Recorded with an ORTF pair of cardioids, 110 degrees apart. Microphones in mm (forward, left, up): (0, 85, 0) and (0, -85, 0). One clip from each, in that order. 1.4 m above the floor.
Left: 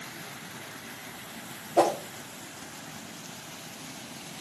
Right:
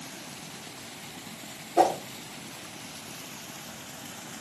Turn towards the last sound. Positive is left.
turn(degrees=15)